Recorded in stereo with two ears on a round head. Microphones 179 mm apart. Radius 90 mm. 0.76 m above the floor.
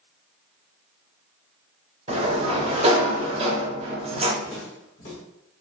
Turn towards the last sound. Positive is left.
turn(degrees=35)  # may be behind; listen again after turning